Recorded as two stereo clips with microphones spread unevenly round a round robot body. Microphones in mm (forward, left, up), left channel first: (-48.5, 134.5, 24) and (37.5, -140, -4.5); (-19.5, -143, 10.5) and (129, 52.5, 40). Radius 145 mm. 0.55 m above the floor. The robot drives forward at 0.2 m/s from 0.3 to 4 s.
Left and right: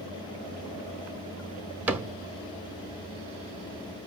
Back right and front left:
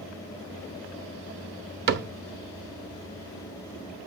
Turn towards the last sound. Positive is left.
turn(degrees=20)